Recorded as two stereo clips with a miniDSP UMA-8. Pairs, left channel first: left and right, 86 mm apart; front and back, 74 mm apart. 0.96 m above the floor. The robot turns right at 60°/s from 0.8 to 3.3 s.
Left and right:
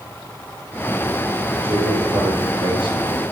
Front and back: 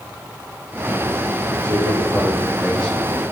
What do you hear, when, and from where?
1.6 s a man speaking: 150° right, 4 m; by 3.2 s 55° right, 4 m